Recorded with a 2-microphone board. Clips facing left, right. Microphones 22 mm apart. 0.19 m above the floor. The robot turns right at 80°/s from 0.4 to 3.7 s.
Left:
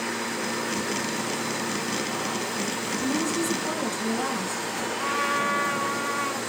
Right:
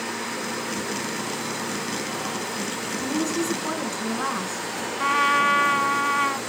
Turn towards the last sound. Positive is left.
turn(degrees=-45)  # may be behind; listen again after turning